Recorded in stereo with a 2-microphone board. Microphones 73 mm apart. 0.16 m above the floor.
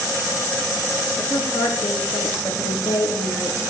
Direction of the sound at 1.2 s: 70° left (ahead or behind).